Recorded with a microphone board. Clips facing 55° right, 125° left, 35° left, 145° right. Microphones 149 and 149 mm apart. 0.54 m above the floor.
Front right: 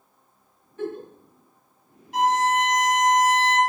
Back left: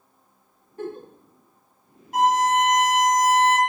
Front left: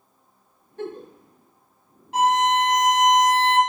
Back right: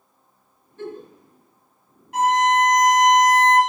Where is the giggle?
70° left, 0.7 m.